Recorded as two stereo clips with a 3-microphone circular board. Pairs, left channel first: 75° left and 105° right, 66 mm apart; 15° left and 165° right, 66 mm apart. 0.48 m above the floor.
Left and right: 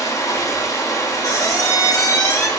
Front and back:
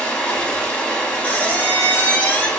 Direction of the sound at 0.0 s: 85° left.